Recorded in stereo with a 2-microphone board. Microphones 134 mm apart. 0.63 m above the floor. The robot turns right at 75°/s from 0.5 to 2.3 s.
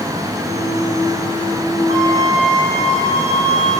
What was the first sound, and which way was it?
A flute, 85° right.